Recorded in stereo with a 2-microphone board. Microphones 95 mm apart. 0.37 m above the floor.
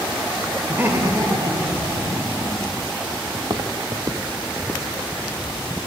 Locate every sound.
0.7 s laughter: 15° right (ahead or behind), 1.0 m; by 2.8 s 70° right (ahead or behind), 3.5 m
3.3 s footsteps: 50° right (ahead or behind), 0.6 m; by 5.4 s 10° right (ahead or behind), 2 m